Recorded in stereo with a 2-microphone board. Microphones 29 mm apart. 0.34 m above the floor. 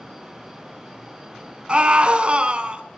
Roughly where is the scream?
Right.